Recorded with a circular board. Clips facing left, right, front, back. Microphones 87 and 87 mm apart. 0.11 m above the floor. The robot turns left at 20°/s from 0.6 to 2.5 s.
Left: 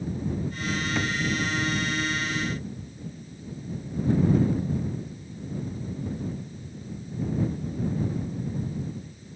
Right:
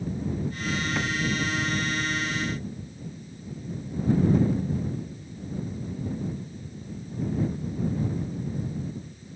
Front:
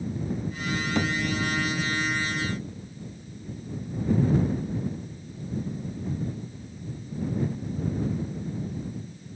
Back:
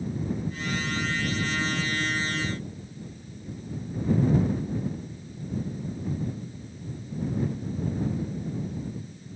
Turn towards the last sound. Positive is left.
turn(degrees=-35)